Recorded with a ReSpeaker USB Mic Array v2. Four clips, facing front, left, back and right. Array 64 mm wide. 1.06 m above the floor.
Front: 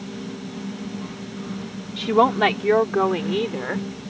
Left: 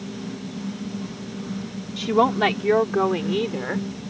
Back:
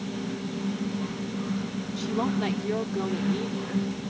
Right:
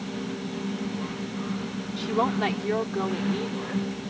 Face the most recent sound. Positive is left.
turn(degrees=35)